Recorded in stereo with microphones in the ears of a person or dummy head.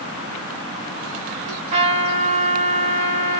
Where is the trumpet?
40° right (ahead or behind), 1.3 m.